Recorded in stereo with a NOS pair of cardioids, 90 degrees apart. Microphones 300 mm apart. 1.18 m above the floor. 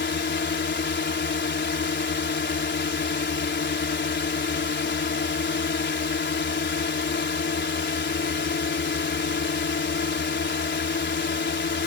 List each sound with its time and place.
0.0 s a drone: 40° left